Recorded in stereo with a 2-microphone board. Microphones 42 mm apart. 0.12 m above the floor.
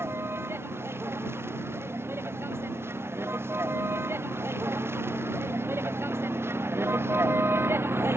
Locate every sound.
0.0 s a vehicle: 85° right; by 8.2 s 80° right